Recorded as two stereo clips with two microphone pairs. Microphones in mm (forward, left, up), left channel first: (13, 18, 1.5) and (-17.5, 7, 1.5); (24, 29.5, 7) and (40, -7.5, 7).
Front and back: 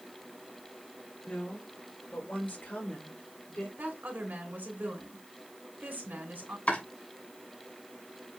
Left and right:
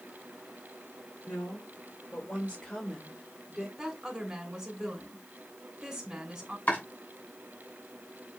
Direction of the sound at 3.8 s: 135° right.